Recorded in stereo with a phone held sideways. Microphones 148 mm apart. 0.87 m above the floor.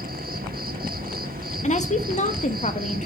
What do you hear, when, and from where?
0.0 s an insect: 80° right, 1.4 m
1.6 s a woman speaking: 50° left (ahead or behind), 1.3 m